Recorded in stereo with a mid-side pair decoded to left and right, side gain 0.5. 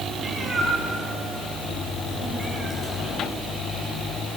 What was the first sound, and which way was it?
A cat meowing, 30° right.